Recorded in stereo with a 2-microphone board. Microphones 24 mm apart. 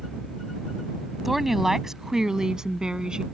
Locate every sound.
1.2 s a woman speaking: 10° right (ahead or behind); by 3.2 s 35° right (ahead or behind)